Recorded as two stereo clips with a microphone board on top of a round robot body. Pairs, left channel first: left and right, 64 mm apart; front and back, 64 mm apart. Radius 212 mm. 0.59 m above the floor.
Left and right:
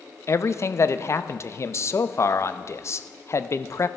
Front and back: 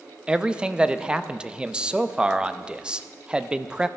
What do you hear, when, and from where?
0.3 s a man speaking: 110° left, 0.9 m